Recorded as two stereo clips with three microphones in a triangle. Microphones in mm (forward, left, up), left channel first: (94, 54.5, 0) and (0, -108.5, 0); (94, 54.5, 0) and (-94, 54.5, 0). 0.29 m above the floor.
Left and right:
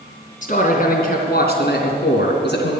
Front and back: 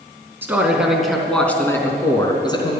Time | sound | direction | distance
0.4 | a man speaking | 100° left | 3 m